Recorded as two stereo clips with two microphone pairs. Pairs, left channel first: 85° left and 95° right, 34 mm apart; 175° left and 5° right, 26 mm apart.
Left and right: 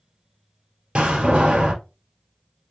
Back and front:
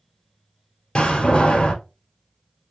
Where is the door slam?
150° right, 1.7 m.